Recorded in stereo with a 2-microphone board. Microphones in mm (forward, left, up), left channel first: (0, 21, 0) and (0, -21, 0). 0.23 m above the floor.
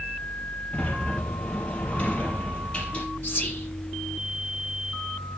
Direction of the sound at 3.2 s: 45° left (ahead or behind).